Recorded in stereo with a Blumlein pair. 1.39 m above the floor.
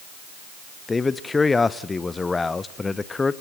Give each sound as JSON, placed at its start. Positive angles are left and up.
{"t": 0.9, "sound": "a man speaking", "azimuth_deg": 10, "distance_m": 0.9}